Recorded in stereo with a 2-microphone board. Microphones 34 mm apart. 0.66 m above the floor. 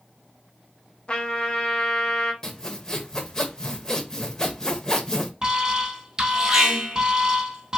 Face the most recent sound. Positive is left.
turn(degrees=-20)  # may be behind; listen again after turning